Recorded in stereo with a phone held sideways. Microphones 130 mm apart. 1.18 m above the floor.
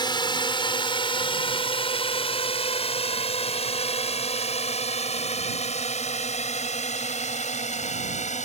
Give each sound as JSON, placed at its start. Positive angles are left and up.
{"t": 0.0, "sound": "a drone", "side_deg": 35}